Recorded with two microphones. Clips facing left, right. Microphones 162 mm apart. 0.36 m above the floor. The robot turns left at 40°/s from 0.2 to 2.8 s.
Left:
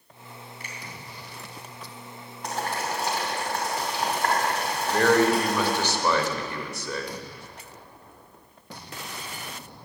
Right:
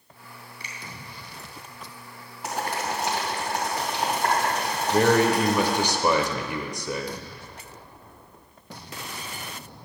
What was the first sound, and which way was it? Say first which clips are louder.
A finger snap: left 1 dB; 50° left (ahead or behind).